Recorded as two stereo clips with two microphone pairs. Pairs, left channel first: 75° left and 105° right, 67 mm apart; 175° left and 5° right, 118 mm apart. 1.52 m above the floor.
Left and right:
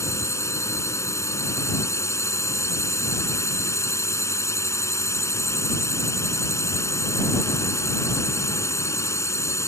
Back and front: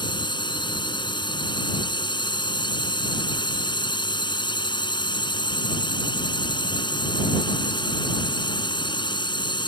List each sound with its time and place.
0.0 s a drone: 120° left